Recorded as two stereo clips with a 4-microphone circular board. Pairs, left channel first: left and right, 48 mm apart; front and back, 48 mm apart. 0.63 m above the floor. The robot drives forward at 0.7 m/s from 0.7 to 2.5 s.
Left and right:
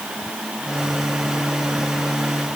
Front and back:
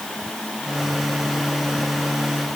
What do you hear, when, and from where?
Only background noise.